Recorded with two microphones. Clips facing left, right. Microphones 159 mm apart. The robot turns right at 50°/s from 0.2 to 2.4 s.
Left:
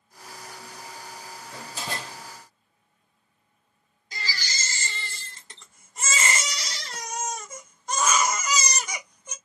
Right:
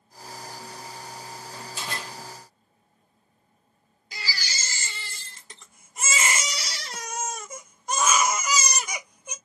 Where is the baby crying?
10° right (ahead or behind), 0.7 m.